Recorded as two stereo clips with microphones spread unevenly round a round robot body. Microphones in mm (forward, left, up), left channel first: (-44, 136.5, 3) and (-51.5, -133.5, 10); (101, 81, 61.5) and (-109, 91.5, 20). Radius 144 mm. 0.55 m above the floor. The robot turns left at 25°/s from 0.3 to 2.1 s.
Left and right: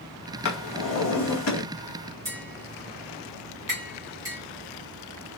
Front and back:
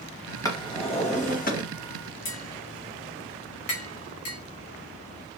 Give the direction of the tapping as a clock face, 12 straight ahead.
12 o'clock.